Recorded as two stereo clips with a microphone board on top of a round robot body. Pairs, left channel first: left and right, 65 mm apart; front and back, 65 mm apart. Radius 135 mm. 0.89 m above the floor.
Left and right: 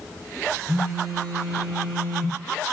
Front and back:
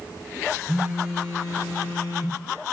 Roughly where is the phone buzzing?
Right.